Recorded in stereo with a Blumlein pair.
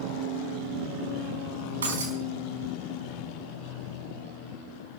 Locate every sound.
1.8 s breaking glass: 70° right, 4.5 m